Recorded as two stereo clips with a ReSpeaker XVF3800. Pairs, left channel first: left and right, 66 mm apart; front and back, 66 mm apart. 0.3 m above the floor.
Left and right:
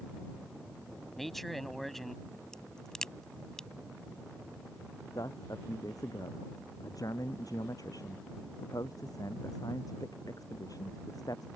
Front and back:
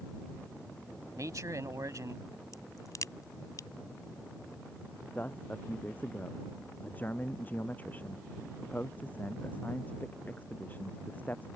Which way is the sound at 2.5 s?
10° left.